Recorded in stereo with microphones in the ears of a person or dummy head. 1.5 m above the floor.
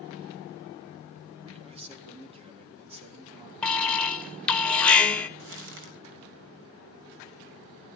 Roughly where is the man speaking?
Right.